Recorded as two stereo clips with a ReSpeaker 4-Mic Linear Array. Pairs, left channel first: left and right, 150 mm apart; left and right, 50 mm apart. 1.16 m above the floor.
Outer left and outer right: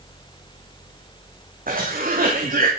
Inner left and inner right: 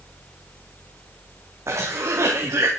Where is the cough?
65° right (ahead or behind), 2.5 m.